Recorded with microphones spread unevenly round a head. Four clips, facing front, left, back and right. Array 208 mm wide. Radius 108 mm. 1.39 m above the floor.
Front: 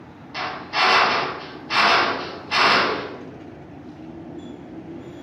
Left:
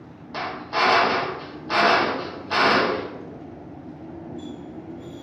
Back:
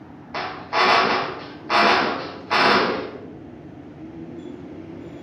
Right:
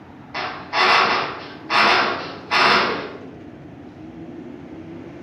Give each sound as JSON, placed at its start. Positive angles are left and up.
{"t": 0.3, "sound": "a drill", "azimuth_deg": 165, "distance_m": 0.5}